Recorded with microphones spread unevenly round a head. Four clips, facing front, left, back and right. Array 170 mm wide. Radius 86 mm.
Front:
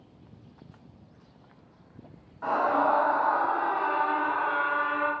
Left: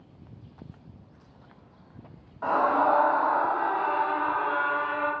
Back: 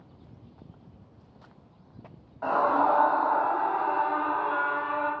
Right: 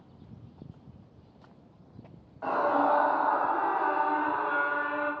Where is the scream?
145° left, 0.8 m; by 5.1 s 55° right, 1.5 m.